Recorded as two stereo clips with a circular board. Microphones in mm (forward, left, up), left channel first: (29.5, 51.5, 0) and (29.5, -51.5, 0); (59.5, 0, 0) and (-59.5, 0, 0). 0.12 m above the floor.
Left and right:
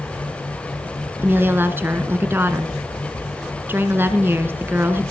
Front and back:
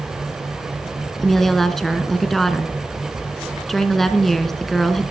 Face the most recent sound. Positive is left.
turn(degrees=-85)